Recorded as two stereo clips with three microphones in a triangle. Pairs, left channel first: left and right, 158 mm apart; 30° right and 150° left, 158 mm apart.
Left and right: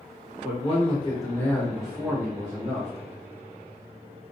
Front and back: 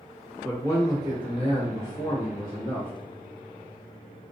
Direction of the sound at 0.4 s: 45° left.